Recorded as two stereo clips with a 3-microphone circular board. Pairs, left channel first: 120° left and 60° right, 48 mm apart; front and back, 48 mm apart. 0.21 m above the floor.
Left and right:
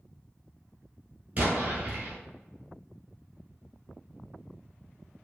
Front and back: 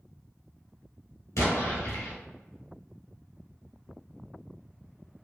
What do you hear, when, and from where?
1.4 s an explosion: straight ahead, 1.6 m